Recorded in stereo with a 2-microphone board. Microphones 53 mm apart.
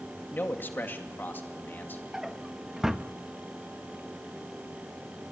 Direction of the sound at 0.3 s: 40° left (ahead or behind).